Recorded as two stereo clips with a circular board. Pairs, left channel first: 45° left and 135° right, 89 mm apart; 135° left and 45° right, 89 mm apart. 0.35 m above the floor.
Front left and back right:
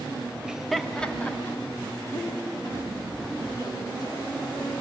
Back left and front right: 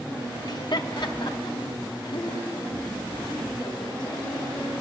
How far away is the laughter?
About 1.2 m.